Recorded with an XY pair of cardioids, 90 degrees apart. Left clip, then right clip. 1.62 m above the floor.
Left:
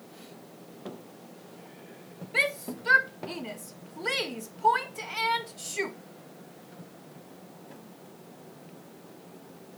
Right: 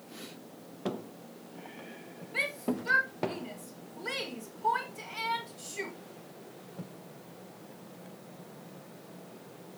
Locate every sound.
2.3 s a shout: 50° left, 1.8 m